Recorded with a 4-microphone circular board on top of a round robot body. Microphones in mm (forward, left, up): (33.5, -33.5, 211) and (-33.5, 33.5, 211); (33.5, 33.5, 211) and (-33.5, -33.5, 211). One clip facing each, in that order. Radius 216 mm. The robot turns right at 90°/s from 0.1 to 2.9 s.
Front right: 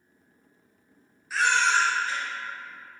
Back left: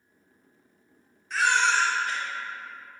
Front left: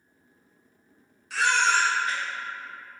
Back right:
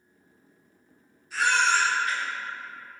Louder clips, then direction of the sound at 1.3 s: Even, even; 40° left.